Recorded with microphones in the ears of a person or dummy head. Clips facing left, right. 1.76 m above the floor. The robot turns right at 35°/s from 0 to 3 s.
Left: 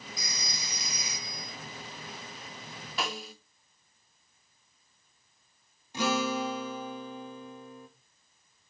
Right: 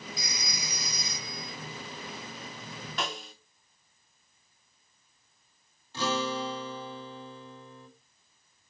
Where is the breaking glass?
No breaking glass in this recording.